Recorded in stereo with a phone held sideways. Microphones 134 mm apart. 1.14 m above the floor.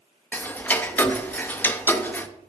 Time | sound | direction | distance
0.3 | ticking | 15° left (ahead or behind) | 0.5 m